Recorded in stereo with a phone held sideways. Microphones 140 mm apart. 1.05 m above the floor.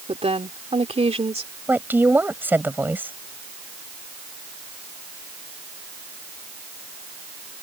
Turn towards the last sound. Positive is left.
turn(degrees=-15)  # may be behind; listen again after turning